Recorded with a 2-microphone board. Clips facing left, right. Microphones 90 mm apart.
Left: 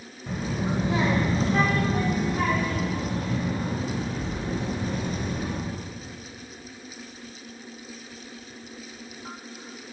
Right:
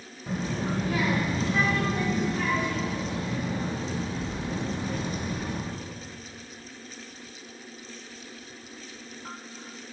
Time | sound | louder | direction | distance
0.3 | a child speaking | left 1 dB | 5° right (ahead or behind) | 0.6 m